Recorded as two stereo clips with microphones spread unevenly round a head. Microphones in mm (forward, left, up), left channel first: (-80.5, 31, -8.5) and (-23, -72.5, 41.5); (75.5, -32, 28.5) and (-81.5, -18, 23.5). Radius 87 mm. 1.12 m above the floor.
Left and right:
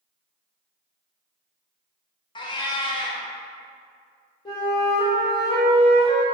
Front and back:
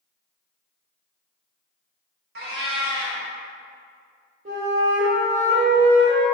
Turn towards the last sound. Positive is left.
turn(degrees=145)